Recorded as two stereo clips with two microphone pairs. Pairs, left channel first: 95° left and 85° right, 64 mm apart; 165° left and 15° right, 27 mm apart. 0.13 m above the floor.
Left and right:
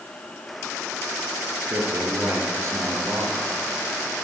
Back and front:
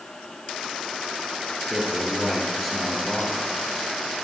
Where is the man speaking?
110° right, 2.5 m.